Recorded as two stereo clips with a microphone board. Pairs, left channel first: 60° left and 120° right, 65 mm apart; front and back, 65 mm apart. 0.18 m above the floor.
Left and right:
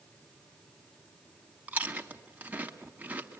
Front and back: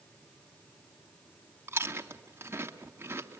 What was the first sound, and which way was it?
Chewing, 170° right.